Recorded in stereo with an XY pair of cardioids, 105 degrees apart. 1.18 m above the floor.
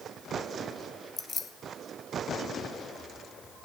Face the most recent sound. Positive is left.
turn(degrees=45)